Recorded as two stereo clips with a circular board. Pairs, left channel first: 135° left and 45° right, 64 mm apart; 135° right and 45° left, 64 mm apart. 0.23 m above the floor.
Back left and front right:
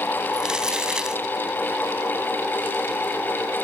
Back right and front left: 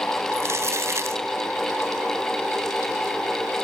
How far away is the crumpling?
About 0.8 m.